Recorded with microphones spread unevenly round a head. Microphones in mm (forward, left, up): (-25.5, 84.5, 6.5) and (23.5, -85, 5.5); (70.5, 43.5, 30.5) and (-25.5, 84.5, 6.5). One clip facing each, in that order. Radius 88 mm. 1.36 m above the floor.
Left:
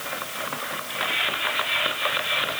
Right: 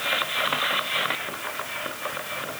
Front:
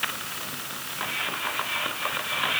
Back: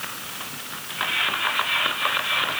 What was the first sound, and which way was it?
Only background noise.